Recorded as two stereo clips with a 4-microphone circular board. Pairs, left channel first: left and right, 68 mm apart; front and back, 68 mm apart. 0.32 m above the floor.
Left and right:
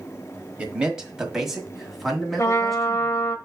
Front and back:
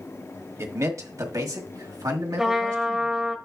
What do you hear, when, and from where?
0.6 s a man speaking: 155° right, 1.2 m; by 3.1 s 175° left, 2.5 m
2.4 s a trumpet: 100° left, 1.2 m